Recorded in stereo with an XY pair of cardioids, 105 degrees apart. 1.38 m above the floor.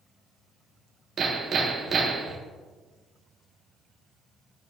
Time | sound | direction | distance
1.2 | hammering | 45° right | 1.4 m